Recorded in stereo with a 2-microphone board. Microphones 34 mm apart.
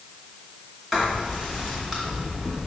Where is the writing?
10° right (ahead or behind), 2 m.